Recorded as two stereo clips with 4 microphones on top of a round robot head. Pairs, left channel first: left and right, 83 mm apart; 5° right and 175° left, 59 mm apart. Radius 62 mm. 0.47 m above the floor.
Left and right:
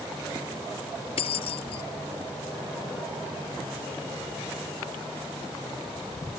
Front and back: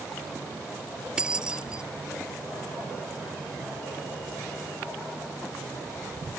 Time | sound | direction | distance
1.2 | keys jangling | 95° left | ?